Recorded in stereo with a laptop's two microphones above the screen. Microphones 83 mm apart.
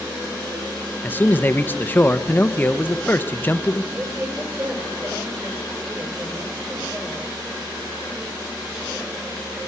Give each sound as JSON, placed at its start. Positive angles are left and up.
{"t": 1.0, "sound": "a man speaking", "side_deg": 25, "distance_m": 0.8}
{"t": 3.9, "sound": "a woman speaking", "side_deg": -35, "distance_m": 3.0}